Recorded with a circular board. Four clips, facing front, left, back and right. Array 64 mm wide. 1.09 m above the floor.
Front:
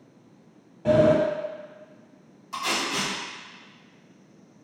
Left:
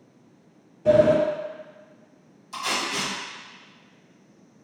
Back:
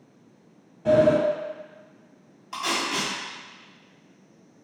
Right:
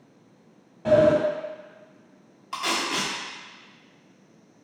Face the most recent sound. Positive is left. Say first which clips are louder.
# right 1 dB, back 1 dB
turn(degrees=-100)